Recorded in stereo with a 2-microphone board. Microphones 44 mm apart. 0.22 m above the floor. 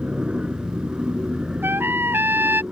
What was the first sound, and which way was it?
An aircraft, 25° right (ahead or behind).